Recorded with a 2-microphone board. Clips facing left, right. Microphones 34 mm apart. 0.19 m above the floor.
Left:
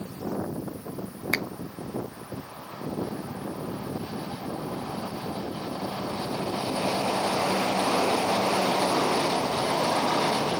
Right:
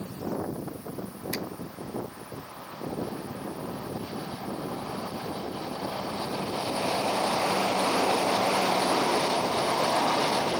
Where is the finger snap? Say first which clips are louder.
Left 8 dB; 65° left (ahead or behind).